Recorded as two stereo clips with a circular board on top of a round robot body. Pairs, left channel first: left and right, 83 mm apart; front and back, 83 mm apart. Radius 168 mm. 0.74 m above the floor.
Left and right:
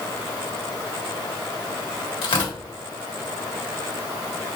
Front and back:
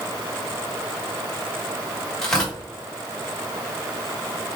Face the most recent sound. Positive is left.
turn(degrees=85)